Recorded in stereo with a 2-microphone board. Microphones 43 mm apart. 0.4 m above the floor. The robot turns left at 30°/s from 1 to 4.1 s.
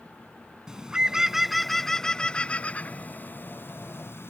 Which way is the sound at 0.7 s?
20° right (ahead or behind).